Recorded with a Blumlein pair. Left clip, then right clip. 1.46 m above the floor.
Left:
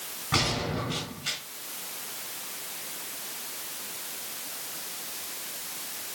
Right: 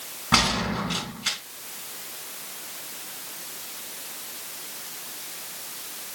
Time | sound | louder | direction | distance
0.3 | a gunshot | right 6 dB | 25° right | 4 m